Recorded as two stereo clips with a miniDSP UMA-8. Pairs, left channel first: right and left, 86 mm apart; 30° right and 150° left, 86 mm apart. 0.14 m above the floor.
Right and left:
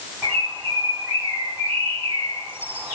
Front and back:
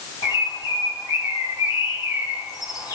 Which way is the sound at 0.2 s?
25° left.